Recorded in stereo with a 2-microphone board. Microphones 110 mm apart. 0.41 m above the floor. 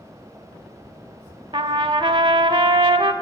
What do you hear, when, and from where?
1.5 s a trumpet: 50° right (ahead or behind), 0.6 m